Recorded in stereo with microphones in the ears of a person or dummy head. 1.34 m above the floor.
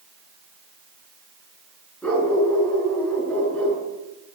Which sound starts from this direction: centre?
A dog barking, at 2.0 s.